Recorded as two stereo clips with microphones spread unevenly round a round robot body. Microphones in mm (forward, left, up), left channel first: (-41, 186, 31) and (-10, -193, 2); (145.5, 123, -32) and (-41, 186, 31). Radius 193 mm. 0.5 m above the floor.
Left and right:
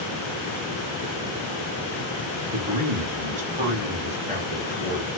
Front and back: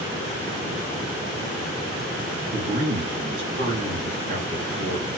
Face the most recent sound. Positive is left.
turn(degrees=-145)